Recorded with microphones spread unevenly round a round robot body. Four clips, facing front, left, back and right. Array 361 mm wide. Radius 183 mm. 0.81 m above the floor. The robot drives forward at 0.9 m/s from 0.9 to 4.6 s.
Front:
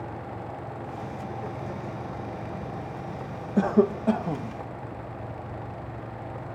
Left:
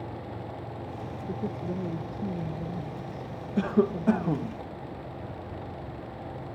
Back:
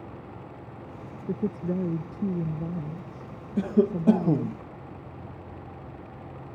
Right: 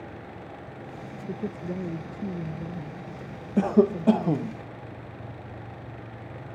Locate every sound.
1.3 s a woman speaking: 175° right
3.6 s a cough: 35° right; by 4.6 s 165° right